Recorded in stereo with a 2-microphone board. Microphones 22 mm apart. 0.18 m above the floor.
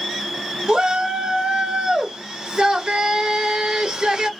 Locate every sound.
0.7 s a shout: 25° right (ahead or behind), 1.0 m